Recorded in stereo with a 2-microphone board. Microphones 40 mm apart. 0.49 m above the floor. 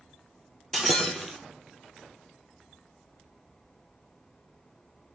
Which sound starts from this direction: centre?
Breaking glass, at 0.7 s.